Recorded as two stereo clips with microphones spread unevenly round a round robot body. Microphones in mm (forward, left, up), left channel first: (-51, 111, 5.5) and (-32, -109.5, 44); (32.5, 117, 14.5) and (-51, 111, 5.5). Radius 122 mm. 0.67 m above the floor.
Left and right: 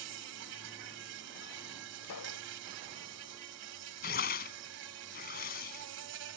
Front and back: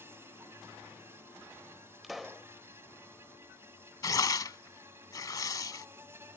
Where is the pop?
90° left.